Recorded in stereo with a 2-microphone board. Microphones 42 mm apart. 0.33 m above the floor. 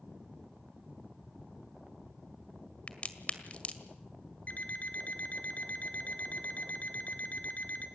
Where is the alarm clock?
40° left (ahead or behind), 2 m.